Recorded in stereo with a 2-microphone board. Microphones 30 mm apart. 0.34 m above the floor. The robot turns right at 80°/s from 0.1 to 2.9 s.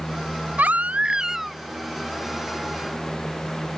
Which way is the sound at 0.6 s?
75° right.